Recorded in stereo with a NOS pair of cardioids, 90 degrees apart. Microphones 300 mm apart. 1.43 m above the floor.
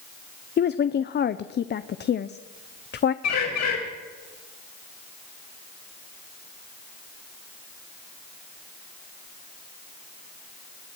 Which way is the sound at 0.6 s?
35° left.